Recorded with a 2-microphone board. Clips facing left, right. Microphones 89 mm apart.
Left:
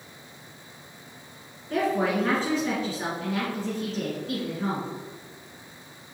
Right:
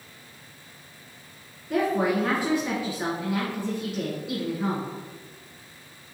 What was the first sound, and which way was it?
A woman speaking, 10° right (ahead or behind).